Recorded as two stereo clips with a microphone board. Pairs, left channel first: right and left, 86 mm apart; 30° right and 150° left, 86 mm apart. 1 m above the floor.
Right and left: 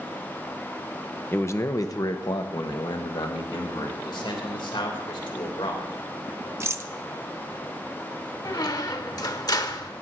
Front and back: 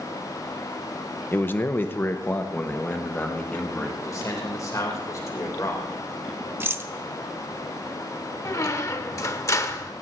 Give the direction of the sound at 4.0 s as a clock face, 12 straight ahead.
3 o'clock.